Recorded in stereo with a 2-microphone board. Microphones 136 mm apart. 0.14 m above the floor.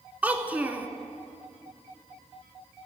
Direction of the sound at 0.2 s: 15° right (ahead or behind).